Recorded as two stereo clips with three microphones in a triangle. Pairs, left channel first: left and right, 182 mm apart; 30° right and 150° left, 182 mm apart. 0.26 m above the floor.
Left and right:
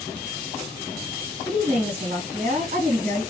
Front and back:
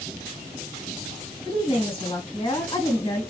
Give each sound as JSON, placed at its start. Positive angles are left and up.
{"t": 1.4, "sound": "a woman speaking", "azimuth_deg": -75, "distance_m": 2.0}